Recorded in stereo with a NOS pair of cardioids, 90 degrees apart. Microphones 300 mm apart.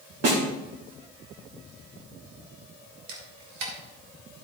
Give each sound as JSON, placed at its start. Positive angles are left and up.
{"t": 0.2, "sound": "a snare drum", "azimuth_deg": -55, "distance_m": 3.0}
{"t": 3.1, "sound": "a camera shutter", "azimuth_deg": -70, "distance_m": 2.5}